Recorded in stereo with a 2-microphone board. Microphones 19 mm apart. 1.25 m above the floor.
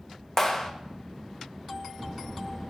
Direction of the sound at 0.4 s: 25° left (ahead or behind).